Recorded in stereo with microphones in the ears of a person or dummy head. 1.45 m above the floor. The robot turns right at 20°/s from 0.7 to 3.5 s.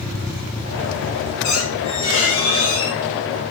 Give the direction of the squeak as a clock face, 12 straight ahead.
8 o'clock.